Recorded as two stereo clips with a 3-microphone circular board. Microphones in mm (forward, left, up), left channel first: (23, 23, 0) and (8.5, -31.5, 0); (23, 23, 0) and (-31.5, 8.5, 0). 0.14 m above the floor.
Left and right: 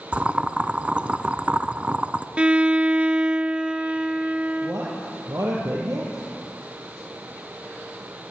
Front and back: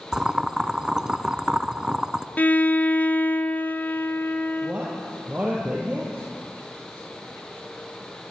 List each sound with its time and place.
0.1 s boiling: 110° right, 0.8 m
2.4 s a violin: 40° right, 0.8 m
4.6 s a man speaking: 95° right, 3.5 m